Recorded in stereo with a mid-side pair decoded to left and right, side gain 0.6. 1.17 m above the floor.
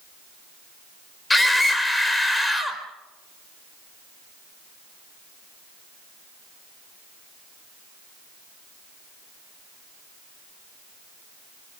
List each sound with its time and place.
1.3 s a scream: 10° left, 4.5 m